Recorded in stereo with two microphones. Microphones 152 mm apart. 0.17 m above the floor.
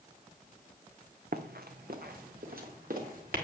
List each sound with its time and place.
1.3 s running footsteps: 85° right, 1.0 m; by 3.4 s 70° right (ahead or behind), 3.5 m